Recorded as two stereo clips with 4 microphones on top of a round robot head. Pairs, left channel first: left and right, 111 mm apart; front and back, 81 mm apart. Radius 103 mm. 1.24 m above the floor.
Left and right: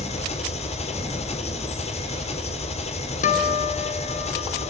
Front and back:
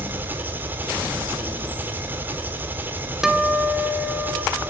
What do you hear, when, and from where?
0.0 s an engine running: 115° left, 4 m
3.2 s a guitar: 95° left, 2.5 m